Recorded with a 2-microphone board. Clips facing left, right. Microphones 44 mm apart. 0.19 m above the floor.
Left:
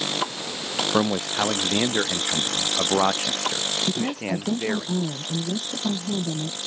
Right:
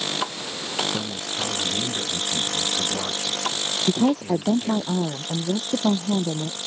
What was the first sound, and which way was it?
A man speaking, 85° left.